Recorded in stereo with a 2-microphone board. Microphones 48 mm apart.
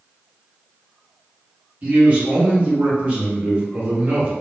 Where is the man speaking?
30° right (ahead or behind), 1.2 m.